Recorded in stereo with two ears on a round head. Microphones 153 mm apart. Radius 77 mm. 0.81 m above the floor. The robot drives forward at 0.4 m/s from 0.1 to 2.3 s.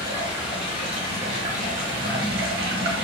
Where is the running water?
25° right (ahead or behind), 1.2 m; by 3.0 s 60° right (ahead or behind), 0.6 m.